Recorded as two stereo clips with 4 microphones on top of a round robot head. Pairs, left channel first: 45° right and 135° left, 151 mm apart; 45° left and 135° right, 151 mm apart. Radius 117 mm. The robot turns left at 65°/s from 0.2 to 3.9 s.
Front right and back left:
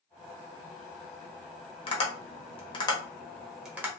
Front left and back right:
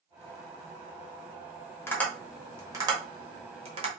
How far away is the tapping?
About 1.4 m.